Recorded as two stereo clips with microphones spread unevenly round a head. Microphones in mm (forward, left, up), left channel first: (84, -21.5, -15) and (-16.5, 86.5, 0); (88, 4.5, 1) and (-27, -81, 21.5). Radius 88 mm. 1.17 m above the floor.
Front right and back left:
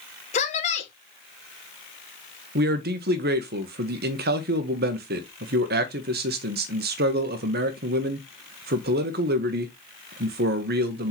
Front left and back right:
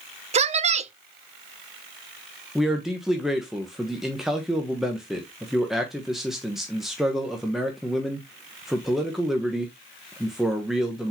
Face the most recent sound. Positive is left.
turn(degrees=125)